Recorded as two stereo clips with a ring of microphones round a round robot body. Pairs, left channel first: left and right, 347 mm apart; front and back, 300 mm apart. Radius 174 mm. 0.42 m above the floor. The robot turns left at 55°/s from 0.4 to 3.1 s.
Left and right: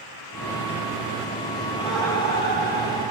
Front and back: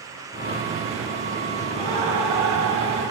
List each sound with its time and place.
1.7 s laughter: 165° right, 2.5 m; by 3.0 s 120° left, 2.5 m